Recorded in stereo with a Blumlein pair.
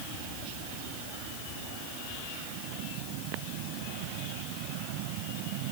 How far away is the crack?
I don't hear a crack.